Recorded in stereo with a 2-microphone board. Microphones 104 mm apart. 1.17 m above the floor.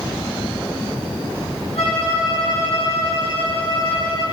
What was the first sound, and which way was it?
A violin, 80° left.